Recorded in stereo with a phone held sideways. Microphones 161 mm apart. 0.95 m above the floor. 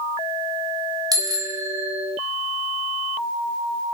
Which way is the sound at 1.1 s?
25° right (ahead or behind).